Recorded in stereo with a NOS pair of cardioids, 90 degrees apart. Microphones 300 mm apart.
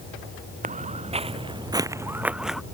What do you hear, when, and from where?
0.6 s footsteps: 25° right; by 2.6 s straight ahead